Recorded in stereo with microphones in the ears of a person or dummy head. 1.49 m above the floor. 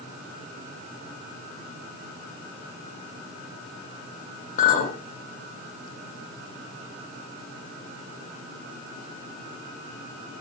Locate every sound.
4.6 s a clink: 45° left (ahead or behind), 0.7 m